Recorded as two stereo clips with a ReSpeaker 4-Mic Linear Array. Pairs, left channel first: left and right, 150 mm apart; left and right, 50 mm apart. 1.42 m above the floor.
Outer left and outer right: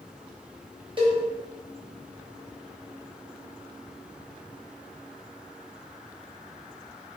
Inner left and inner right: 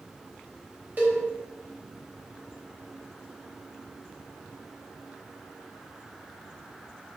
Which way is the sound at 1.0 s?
35° right (ahead or behind).